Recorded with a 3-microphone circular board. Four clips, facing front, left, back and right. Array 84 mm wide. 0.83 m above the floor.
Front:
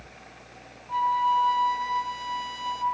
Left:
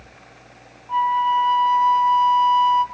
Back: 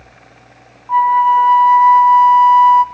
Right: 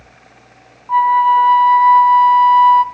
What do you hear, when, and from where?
0.9 s a flute: 135° right, 1.1 m